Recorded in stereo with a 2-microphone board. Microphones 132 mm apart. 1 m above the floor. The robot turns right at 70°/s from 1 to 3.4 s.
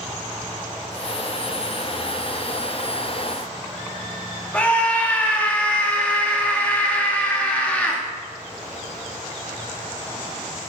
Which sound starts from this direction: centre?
A scream, at 4.5 s.